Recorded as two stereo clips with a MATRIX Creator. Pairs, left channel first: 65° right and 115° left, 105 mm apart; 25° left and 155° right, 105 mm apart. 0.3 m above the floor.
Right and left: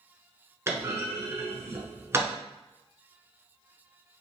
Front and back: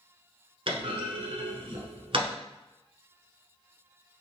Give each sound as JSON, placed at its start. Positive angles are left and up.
{"t": 0.7, "sound": "a clunk", "azimuth_deg": 175, "distance_m": 0.9}